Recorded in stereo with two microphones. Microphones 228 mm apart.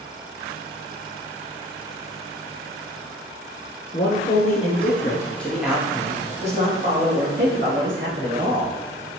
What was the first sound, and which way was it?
A man speaking, 40° left (ahead or behind).